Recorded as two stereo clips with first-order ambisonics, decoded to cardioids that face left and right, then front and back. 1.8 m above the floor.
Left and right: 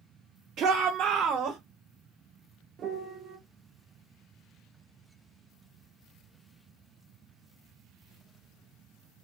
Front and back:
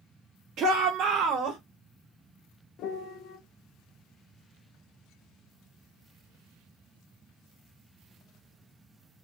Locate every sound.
0.6 s a shout: 135° right, 0.7 m
2.8 s a piano: 35° right, 0.6 m